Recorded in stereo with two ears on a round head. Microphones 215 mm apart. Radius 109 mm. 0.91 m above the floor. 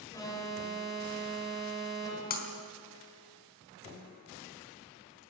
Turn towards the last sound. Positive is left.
turn(degrees=45)  # may be behind; listen again after turning